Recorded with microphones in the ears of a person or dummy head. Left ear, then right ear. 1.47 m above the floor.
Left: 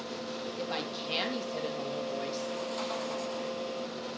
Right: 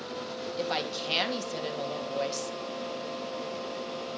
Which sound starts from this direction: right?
A woman speaking, at 0.6 s.